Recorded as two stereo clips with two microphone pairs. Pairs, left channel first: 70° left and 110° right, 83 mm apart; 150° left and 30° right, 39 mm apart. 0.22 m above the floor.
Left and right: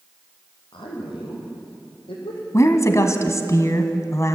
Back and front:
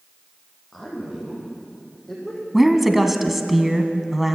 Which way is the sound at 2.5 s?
50° left.